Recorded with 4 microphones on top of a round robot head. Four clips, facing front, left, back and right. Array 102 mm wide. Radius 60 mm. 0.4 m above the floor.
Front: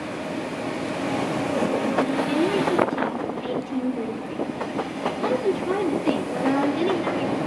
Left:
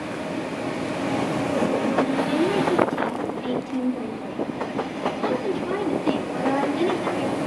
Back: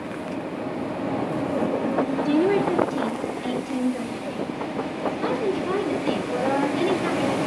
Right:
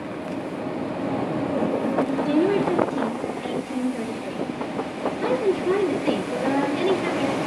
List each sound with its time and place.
2.2 s a woman speaking: 120° right, 6.5 m; by 7.4 s 90° right, 10 m